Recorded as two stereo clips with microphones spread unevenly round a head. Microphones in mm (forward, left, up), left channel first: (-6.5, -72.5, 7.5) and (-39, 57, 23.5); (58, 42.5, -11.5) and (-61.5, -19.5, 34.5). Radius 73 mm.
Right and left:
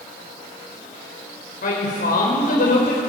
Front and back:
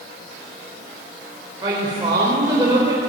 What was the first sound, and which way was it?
A woman speaking, 95° right.